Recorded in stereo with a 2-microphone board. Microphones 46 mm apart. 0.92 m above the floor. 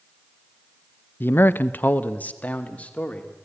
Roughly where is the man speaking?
Left.